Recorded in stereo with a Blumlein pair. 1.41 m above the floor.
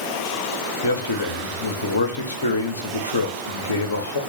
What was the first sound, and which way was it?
A man speaking, 65° left.